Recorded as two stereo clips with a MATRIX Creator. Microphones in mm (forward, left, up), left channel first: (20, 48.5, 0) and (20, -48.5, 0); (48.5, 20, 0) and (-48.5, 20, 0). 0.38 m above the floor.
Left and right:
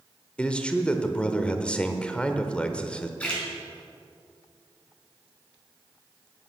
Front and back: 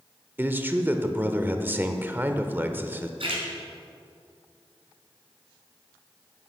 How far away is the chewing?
No chewing in this recording.